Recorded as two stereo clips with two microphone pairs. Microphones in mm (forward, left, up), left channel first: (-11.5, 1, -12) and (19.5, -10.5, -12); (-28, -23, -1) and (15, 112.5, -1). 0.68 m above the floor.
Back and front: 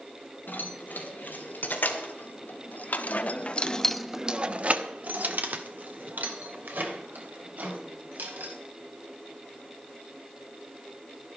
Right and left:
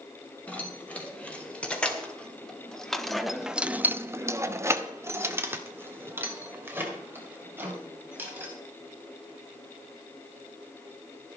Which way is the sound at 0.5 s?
170° left.